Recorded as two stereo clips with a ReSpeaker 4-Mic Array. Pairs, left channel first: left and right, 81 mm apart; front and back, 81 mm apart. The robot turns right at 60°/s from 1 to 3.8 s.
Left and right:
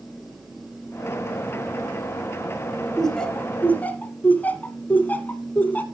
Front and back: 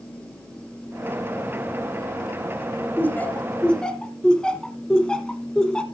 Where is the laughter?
10° left, 1.1 m; by 5.8 s 60° left, 1.1 m.